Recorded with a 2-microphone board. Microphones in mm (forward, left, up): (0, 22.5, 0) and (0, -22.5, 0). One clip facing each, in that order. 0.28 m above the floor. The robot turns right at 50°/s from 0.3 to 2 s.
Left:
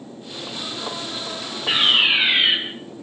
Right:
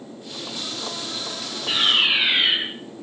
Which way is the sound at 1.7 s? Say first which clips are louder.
Left 2 dB; 35° left (ahead or behind).